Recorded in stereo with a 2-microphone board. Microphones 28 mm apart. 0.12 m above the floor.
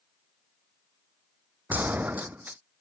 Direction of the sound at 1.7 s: 85° right.